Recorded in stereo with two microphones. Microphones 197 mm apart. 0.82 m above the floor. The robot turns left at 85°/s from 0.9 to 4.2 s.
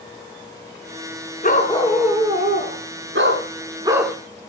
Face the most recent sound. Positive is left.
turn(degrees=170)